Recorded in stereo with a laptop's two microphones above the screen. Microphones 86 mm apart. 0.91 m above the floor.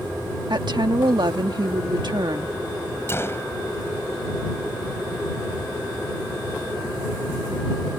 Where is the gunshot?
30° left (ahead or behind).